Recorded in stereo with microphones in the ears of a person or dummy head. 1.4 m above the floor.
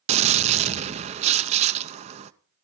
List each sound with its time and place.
0.1 s a gunshot: 30° right (ahead or behind), 0.5 m